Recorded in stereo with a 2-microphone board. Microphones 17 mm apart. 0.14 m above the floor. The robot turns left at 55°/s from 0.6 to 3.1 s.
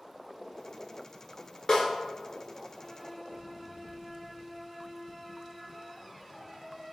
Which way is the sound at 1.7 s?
35° left (ahead or behind).